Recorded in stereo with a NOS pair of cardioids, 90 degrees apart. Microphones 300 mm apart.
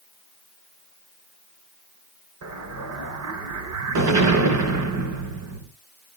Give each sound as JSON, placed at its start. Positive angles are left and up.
{"t": 2.4, "sound": "an explosion", "azimuth_deg": -70, "distance_m": 3.5}